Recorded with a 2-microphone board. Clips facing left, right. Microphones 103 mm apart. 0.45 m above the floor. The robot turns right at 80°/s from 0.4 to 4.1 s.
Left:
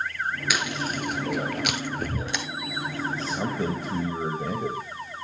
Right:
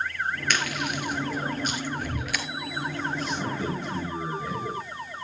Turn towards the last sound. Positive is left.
turn(degrees=105)